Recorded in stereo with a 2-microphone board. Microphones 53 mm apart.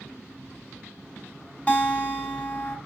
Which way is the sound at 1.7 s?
25° left (ahead or behind).